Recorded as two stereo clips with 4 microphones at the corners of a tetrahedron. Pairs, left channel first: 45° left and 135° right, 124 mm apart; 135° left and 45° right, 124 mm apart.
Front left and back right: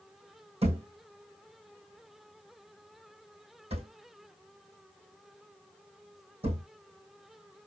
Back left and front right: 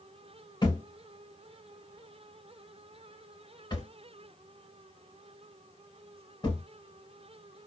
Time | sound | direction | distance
0.6 | a thud | 165° right | 3 m